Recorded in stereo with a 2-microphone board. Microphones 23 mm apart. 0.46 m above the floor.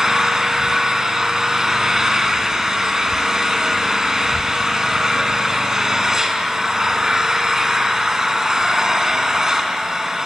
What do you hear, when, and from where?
0.0 s an engine running: 30° right (ahead or behind), 2.5 m